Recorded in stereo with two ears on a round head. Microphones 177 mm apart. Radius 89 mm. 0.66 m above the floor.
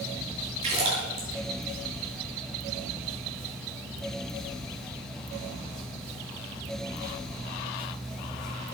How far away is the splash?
About 6 m.